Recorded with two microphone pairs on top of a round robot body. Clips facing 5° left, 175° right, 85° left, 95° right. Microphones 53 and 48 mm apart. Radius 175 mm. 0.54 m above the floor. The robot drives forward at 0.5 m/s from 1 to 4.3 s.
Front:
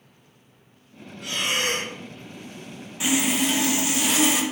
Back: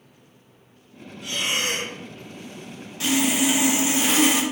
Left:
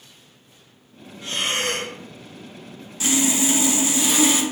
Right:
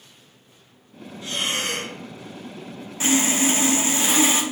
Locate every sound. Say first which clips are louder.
1.2 s breathing: front 1 dB, left 2 dB; 30° left, 0.9 m; by 1.9 s 45° left, 0.7 m
3.0 s sawing: back 2 dB, right 1 dB; 70° right, 0.7 m; by 4.4 s 140° right, 0.8 m